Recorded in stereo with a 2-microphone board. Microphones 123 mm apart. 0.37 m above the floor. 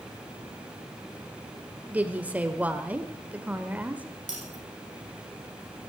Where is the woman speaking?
10° right (ahead or behind), 1.4 m.